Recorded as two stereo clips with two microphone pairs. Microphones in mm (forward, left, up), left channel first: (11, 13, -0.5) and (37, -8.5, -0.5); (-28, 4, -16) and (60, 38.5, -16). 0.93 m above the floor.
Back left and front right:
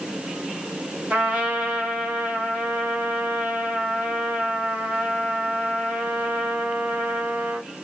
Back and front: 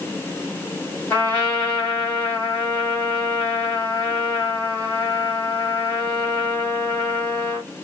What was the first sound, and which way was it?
A trumpet, 95° right.